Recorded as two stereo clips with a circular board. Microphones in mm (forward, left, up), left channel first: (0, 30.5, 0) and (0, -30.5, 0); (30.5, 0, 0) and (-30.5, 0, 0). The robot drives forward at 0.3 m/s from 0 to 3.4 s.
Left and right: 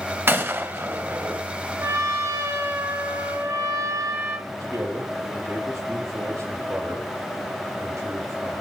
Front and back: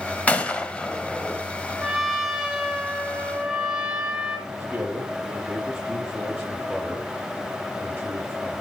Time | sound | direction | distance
0.3 | a gunshot | 55° right | 1.2 m
1.8 | a trumpet | 90° right | 2 m
4.5 | a man speaking | 105° right | 5 m